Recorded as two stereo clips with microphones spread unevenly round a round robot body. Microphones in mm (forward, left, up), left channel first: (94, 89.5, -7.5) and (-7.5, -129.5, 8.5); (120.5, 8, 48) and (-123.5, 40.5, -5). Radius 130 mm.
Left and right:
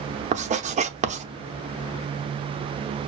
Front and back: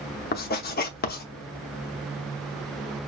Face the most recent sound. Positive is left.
turn(degrees=-60)